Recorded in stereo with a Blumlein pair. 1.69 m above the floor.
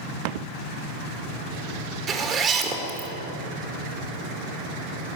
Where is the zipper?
25° right, 1.9 m.